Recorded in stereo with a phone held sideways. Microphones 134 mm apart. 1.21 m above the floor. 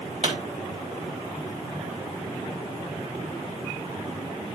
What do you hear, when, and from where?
0.2 s a pop: 50° right (ahead or behind), 2.5 m